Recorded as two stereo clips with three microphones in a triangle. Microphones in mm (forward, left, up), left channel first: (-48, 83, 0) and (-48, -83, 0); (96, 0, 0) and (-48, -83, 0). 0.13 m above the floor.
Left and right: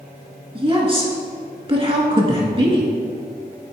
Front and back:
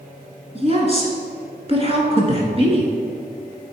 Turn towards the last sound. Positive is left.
turn(degrees=-125)